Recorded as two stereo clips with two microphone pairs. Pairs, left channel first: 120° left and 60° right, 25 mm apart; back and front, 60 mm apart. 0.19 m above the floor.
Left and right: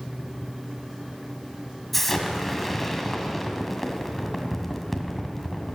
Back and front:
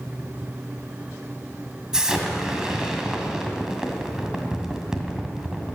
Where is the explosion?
55° left, 1.7 m.